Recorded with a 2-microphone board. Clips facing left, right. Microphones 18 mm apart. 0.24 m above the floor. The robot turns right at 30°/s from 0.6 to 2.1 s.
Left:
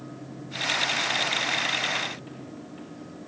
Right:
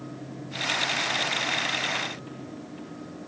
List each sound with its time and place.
Only background noise.